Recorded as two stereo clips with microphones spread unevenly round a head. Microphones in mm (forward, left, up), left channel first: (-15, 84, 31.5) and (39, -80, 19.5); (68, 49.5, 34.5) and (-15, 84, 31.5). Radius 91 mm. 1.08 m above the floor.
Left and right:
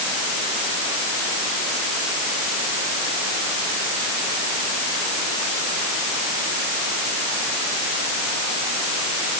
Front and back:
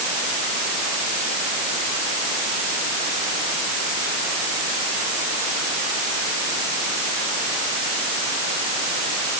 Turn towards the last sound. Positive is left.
No sound to turn to.